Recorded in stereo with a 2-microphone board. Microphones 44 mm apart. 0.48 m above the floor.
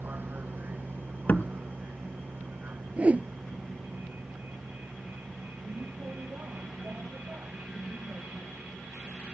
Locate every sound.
0.0 s a vehicle: 45° right (ahead or behind); by 9.3 s 50° right (ahead or behind)
1.3 s a door slam: 45° left (ahead or behind)
3.0 s a whoosh: 30° right (ahead or behind)